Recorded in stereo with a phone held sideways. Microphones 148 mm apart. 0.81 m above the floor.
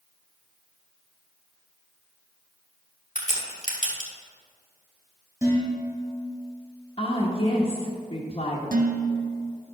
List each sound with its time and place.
3.1 s a crack: 55° left (ahead or behind), 2 m
5.4 s dishes clattering: 20° right (ahead or behind), 3 m
7.0 s a woman speaking: 40° left (ahead or behind), 1.4 m
8.7 s dishes clattering: 65° right (ahead or behind), 0.8 m